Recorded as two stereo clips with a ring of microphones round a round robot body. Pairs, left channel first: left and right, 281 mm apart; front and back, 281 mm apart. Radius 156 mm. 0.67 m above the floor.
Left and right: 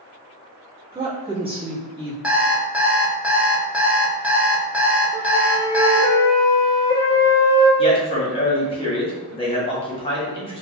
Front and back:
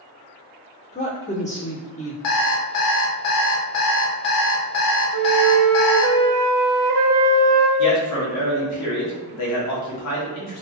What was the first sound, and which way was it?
A woman speaking, 35° right.